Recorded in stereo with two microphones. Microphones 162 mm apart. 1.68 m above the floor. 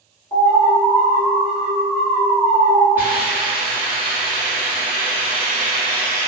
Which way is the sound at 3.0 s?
10° right (ahead or behind).